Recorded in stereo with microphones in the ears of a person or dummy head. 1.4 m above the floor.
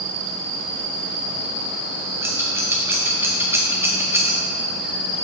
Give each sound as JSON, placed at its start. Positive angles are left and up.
{"t": 2.2, "sound": "scissors", "side_deg": -10, "distance_m": 0.8}